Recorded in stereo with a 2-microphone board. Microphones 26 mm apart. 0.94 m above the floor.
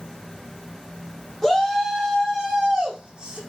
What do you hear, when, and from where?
1.4 s a shout: 15° left (ahead or behind), 1.8 m; by 3.4 s 25° right (ahead or behind), 1.6 m